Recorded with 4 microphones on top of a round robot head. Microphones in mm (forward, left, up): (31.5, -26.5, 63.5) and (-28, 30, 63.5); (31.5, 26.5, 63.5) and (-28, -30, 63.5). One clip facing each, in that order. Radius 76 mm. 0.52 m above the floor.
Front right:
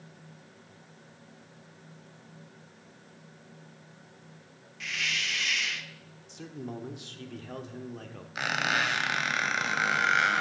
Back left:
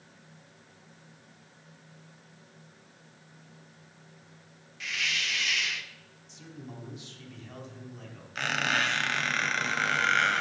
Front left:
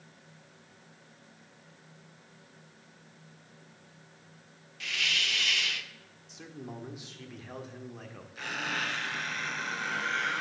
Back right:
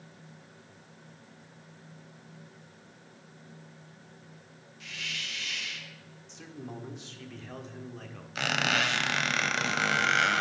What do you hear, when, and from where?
4.8 s a hiss: 45° left, 0.7 m
6.3 s a man speaking: 40° right, 1.4 m
8.3 s a squeak: 125° right, 0.7 m